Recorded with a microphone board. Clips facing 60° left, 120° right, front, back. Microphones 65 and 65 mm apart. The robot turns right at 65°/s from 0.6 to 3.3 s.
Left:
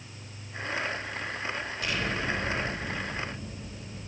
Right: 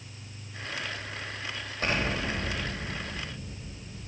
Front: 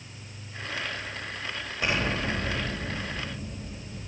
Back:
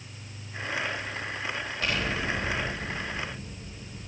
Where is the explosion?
70° right, 3.5 m; by 4.1 s 25° left, 3.5 m.